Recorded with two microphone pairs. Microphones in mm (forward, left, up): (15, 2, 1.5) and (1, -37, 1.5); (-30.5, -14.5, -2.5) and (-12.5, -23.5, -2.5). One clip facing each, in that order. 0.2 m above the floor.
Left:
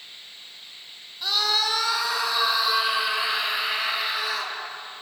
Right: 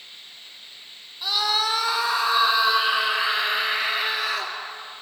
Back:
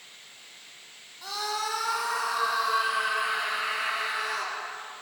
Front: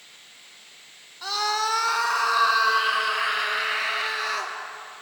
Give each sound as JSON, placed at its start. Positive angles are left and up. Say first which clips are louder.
{"t": 1.2, "sound": "a scream", "louder": "right 1 dB, front 6 dB", "azimuth_deg": -40, "distance_m": 1.7}